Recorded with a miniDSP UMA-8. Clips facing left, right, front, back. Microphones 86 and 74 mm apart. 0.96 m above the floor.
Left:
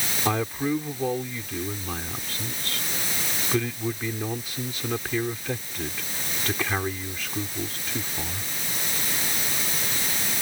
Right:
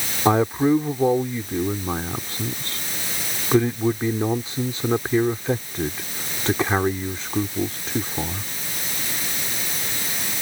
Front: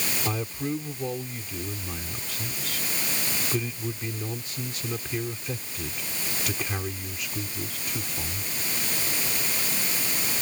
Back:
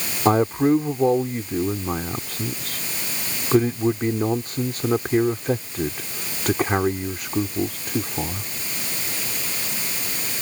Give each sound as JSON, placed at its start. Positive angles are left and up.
{"t": 0.2, "sound": "a man speaking", "azimuth_deg": -150}